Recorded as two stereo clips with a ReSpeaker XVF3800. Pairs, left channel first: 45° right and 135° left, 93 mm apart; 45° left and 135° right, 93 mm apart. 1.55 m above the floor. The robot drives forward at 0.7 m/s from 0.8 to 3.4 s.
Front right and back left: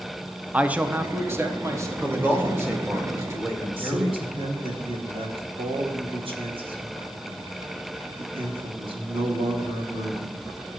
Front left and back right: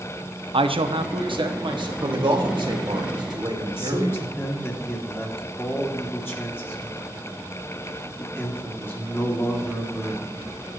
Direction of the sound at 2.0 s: 155° right.